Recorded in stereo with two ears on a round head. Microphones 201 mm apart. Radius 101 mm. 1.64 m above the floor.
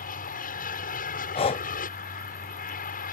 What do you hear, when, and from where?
0.0 s an aircraft: 40° left (ahead or behind)
1.4 s breathing: 25° left (ahead or behind)